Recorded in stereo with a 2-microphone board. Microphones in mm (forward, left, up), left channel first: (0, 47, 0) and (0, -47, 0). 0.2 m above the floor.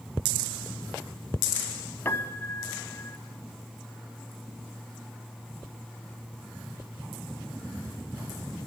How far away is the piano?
About 1.4 m.